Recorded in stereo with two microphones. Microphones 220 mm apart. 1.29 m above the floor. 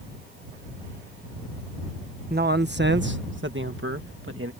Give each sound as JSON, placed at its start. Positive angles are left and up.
{"t": 2.3, "sound": "a man speaking", "side_deg": -45}